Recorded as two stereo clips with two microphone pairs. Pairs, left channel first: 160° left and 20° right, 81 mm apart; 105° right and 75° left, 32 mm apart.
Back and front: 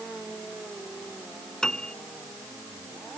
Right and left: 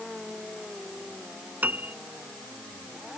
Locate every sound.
1.6 s a piano: 75° left